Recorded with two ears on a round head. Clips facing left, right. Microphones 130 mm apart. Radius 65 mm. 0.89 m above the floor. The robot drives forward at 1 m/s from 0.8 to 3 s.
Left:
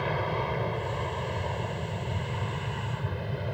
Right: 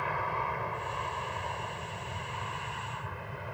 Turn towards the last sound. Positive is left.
turn(degrees=35)  # may be behind; listen again after turning